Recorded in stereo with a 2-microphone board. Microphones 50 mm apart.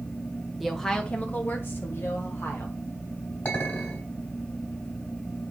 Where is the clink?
45° left (ahead or behind), 3.5 m.